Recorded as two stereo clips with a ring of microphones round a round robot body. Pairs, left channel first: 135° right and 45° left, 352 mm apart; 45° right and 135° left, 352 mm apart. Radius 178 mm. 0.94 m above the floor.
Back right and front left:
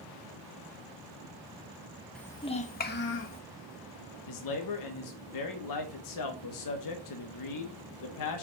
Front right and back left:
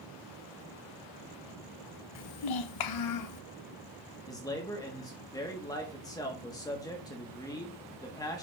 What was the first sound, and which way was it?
A child speaking, 45° right.